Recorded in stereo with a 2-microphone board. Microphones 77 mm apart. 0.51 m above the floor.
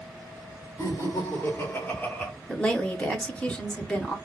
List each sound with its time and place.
0.8 s laughter: 45° left (ahead or behind), 1.6 m; by 2.3 s 15° left (ahead or behind), 1.0 m
2.5 s a woman speaking: 15° left (ahead or behind), 0.8 m